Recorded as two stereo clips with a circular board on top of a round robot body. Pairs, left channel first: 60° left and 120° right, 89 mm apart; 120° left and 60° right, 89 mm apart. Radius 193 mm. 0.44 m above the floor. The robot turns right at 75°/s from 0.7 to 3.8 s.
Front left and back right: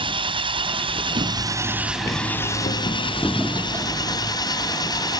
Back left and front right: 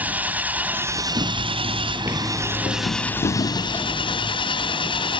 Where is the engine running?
135° right; by 5.2 s 100° left.